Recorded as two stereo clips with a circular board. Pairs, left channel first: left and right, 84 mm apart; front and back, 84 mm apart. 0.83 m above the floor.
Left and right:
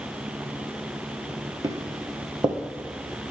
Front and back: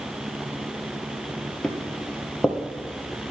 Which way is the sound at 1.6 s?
80° right.